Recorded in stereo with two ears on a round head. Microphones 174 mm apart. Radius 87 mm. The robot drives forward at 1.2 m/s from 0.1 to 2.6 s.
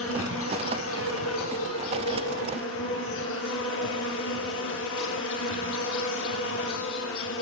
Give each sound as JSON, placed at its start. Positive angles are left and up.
{"t": 0.0, "sound": "an insect", "side_deg": 70, "distance_m": 7.0}